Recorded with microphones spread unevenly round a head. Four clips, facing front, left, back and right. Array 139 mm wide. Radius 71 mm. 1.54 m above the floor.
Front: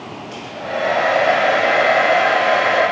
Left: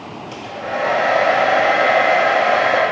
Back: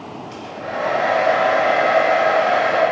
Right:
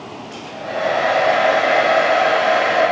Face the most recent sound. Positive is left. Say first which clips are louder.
# left 2 dB, front 2 dB
turn(degrees=85)